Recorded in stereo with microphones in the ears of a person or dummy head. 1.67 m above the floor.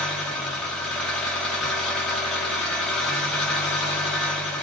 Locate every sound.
0.0 s an engine running: 5° left (ahead or behind), 0.9 m